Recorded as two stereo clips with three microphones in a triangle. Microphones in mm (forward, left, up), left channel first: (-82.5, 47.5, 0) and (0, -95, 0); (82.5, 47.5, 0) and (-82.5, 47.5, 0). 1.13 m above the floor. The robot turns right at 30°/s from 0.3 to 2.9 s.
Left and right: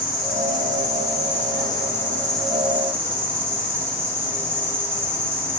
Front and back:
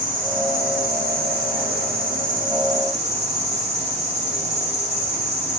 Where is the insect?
145° left, 0.7 m; by 5.6 s 135° right, 0.7 m.